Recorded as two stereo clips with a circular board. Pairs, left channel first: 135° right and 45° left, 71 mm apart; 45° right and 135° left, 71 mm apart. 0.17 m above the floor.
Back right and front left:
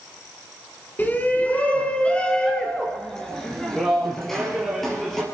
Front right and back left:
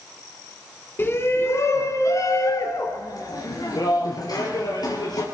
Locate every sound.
1.0 s a shout: 85° right, 1.6 m; by 5.2 s 45° right, 3.5 m